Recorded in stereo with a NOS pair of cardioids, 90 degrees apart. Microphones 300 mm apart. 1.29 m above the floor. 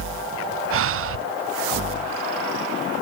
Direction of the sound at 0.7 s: 45° right.